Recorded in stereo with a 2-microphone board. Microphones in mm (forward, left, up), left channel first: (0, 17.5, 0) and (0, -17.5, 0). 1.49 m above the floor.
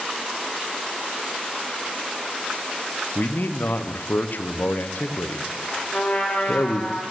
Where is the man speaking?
65° left (ahead or behind), 0.6 m.